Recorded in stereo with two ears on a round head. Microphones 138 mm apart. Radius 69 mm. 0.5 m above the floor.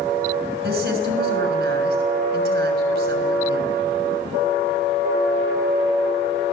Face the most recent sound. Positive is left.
turn(degrees=-70)  # may be behind; listen again after turning